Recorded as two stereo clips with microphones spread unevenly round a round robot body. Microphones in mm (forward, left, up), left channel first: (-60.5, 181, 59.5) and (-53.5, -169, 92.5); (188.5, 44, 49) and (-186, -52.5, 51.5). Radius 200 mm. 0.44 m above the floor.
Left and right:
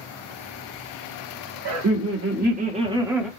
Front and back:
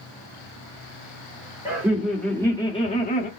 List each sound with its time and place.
1.6 s laughter: 85° right, 1.4 m; by 3.3 s 15° left, 1.1 m